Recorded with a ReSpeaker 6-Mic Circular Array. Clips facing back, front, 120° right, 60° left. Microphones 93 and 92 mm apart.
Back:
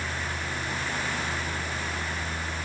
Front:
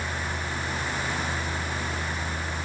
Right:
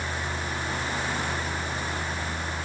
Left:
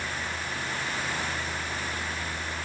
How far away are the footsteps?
No footsteps in this recording.